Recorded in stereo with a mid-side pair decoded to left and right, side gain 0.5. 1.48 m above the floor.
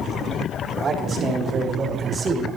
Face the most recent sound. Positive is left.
turn(degrees=-40)